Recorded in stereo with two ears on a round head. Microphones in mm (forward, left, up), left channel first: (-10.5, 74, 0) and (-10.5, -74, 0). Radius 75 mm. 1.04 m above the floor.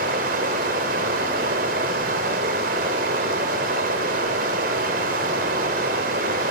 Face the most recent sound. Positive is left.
turn(degrees=-55)  # may be behind; listen again after turning